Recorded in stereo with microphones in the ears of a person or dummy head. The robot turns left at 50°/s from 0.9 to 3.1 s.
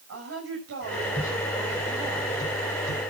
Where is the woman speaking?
100° right, 8 m; by 3.0 s 155° left, 8 m.